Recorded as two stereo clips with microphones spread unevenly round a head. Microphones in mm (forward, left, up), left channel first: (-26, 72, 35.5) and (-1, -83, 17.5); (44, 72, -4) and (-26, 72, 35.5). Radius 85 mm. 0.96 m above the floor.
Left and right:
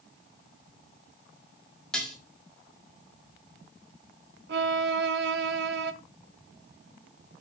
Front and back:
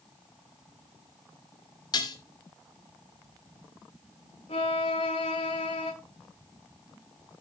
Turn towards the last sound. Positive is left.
turn(degrees=-60)